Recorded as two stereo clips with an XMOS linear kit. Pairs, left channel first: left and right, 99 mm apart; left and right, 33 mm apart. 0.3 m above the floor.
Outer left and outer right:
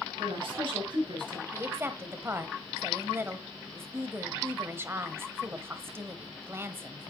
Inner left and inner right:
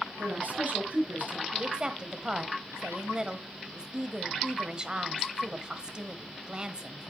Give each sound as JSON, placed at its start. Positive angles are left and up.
{"t": 0.2, "sound": "a woman speaking", "side_deg": -60, "distance_m": 5.5}
{"t": 1.5, "sound": "a woman speaking", "side_deg": -25, "distance_m": 1.2}